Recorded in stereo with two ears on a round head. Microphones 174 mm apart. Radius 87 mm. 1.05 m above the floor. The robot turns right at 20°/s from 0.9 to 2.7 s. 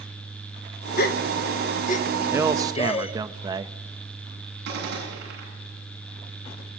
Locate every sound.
1.0 s a gasp: 50° left (ahead or behind), 1.2 m; by 3.1 s 30° left (ahead or behind), 1.2 m
2.3 s a man speaking: 10° right (ahead or behind), 1.0 m; by 3.8 s 20° right (ahead or behind), 1.0 m
4.7 s a gunshot: 60° right (ahead or behind), 7.5 m